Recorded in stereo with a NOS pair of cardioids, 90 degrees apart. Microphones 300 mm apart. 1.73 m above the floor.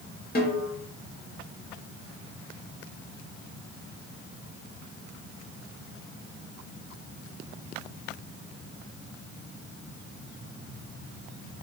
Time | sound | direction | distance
0.3 | a snare drum | 35° left | 1.9 m